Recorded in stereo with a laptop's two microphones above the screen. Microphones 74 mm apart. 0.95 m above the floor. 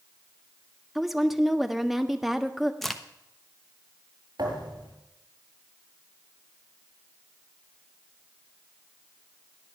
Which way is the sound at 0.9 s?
Centre (ahead or behind).